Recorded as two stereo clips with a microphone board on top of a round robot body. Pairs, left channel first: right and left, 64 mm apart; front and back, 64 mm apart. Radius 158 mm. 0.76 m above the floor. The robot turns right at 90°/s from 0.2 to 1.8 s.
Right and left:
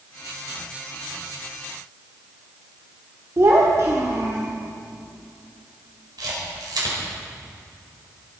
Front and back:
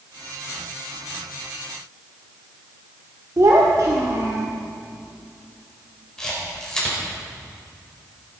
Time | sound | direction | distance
3.4 | a child speaking | 135° left | 1.7 m
6.2 | a camera shutter | 80° left | 4.5 m